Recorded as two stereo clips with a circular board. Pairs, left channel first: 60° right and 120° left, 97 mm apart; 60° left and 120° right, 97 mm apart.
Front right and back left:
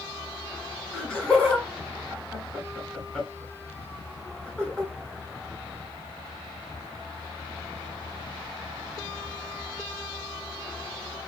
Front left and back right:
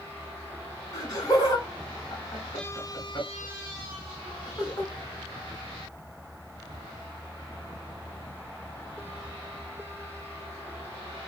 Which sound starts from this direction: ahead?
Laughter, at 0.9 s.